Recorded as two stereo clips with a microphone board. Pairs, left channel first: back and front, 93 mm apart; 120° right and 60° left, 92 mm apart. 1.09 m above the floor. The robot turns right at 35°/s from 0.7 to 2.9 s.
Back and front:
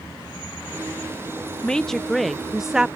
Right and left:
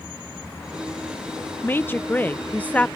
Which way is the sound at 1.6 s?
115° right.